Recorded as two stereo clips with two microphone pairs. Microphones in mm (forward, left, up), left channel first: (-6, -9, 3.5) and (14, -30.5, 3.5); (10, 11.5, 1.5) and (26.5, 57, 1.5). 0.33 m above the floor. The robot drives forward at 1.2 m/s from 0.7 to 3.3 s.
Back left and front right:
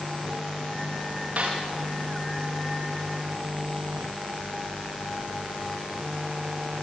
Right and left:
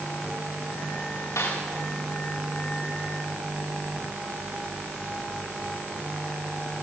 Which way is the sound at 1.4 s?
100° right.